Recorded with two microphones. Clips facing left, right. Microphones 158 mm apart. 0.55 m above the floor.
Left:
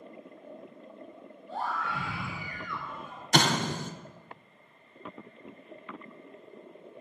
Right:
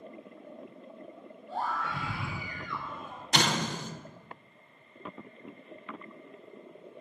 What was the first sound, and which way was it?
A scream, 45° right (ahead or behind).